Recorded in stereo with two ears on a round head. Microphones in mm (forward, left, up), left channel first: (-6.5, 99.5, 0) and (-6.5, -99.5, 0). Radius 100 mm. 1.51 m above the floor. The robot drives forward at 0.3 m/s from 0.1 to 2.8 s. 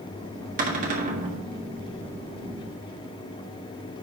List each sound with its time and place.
0.6 s a cupboard door: 40° right (ahead or behind), 1.7 m; by 1.4 s 35° right (ahead or behind), 1.8 m